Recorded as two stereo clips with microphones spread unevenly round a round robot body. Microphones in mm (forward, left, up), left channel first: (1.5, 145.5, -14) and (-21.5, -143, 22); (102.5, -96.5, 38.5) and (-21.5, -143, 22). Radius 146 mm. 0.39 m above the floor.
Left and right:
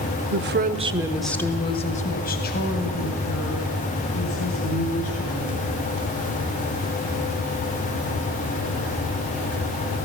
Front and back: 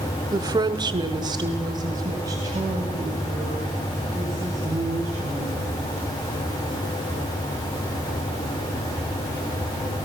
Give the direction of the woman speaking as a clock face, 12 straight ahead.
4 o'clock.